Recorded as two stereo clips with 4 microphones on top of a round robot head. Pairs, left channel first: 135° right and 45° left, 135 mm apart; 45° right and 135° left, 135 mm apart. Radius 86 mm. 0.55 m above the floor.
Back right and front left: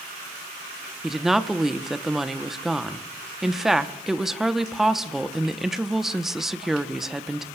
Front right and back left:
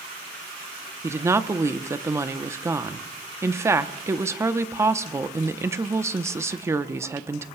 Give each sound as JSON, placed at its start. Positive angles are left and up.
{"t": 1.0, "sound": "a woman speaking", "azimuth_deg": 130, "distance_m": 0.8}